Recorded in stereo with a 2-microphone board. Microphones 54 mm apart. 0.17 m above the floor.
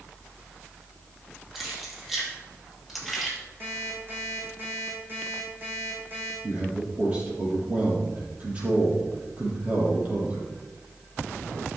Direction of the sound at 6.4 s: 30° right (ahead or behind).